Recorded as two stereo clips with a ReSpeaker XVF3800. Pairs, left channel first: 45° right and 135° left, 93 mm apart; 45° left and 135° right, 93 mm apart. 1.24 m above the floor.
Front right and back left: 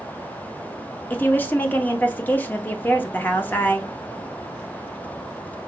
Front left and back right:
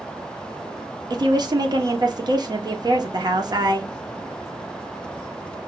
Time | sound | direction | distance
1.1 | a woman speaking | 110° right | 0.8 m